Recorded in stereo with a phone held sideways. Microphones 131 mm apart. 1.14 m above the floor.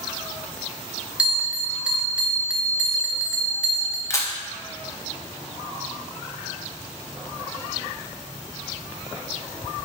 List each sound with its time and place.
1.2 s a bell: 10° right (ahead or behind), 0.5 m
4.1 s a camera shutter: 25° left (ahead or behind), 0.5 m